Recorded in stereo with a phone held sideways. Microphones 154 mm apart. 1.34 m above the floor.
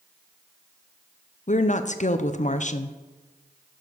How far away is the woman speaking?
About 0.6 m.